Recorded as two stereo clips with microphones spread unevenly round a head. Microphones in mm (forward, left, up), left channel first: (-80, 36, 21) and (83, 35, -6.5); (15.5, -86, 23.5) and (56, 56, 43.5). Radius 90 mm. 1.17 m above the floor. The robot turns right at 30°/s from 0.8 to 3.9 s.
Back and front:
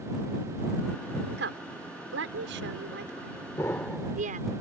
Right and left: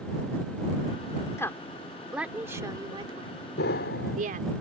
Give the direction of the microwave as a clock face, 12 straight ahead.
I don't hear a microwave.